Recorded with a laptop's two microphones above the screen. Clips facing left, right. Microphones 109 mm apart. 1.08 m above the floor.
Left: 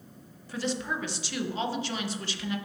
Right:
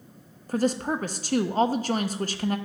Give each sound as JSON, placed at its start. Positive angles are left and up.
{"t": 0.5, "sound": "a woman speaking", "side_deg": -45, "distance_m": 0.6}